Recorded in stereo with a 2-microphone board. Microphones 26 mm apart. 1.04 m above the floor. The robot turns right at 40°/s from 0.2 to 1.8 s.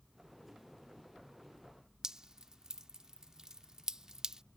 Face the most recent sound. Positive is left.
turn(degrees=-25)  # may be behind; listen again after turning